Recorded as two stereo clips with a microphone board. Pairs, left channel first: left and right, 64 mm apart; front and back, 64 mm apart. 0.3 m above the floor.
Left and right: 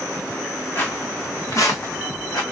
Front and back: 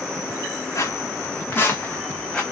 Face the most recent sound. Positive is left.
turn(degrees=80)